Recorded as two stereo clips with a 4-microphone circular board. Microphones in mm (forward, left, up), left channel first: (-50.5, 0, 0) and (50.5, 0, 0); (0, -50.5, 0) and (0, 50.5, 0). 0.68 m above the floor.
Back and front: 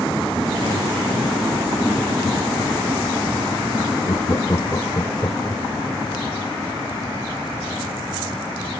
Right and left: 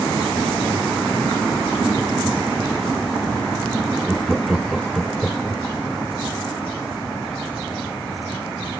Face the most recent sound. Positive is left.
turn(degrees=180)